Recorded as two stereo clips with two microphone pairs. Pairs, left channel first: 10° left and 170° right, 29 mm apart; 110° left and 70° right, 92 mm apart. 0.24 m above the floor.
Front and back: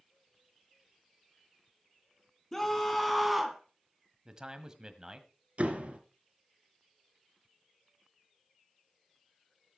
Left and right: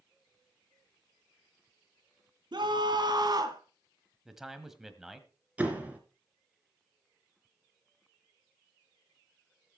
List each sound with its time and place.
2.5 s a scream: 70° right, 1.9 m; by 3.6 s 95° right, 1.6 m
4.2 s a man speaking: 150° right, 1.5 m
5.6 s a door slam: 145° right, 2.5 m